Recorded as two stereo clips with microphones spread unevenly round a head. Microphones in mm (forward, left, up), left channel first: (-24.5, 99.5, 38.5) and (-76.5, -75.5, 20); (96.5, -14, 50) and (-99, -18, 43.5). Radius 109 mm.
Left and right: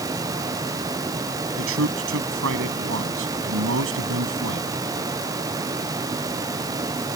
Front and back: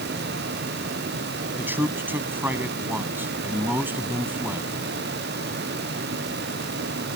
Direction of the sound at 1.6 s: 100° right.